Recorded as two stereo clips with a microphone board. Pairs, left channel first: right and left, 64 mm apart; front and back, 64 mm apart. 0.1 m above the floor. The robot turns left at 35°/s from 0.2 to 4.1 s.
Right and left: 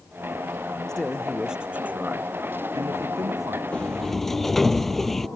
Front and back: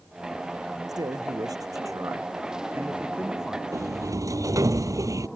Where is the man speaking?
170° right; by 3.6 s 95° left.